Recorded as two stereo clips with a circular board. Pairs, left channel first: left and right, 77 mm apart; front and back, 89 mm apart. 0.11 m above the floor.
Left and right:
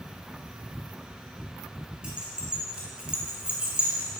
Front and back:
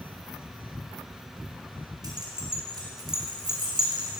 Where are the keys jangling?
160° right, 1.5 m.